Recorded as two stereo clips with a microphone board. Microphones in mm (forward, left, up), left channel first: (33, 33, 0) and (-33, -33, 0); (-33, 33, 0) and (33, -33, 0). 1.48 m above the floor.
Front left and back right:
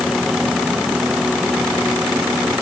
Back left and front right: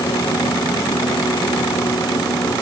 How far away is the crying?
I don't hear crying.